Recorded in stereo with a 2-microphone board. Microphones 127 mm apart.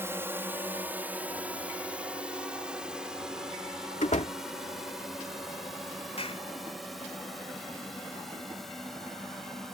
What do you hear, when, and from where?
0.0 s a drone: 20° right (ahead or behind); by 9.8 s centre (ahead or behind)
4.0 s a door slam: 65° left (ahead or behind)
6.2 s a clap: 55° left (ahead or behind)